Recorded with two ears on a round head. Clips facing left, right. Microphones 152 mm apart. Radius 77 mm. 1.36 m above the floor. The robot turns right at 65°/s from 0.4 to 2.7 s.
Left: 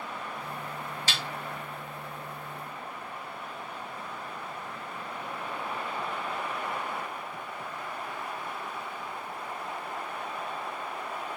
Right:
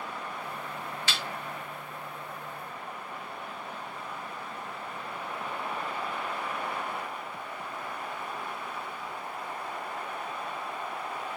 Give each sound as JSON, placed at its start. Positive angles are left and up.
{"t": 1.1, "sound": "a snare drum", "side_deg": 35, "distance_m": 1.3}